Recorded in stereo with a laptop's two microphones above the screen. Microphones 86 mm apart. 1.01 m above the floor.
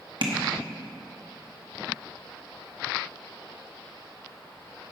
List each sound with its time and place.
0.2 s tapping: 65° right (ahead or behind), 1.2 m